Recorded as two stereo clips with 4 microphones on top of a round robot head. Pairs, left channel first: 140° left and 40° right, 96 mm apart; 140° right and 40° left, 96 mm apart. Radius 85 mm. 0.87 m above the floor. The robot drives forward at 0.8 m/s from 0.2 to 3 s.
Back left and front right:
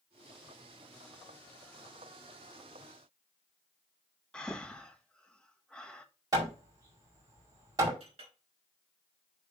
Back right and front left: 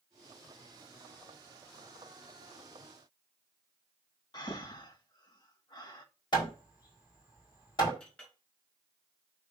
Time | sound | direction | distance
4.3 | breathing | 145° right | 1.3 m
6.3 | hammering | 95° right | 5 m
8.0 | a clink | 60° right | 3.5 m